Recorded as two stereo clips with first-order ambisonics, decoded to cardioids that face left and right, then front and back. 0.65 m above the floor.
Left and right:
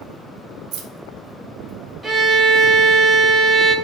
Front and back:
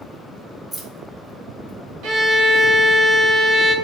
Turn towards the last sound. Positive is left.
turn(degrees=-165)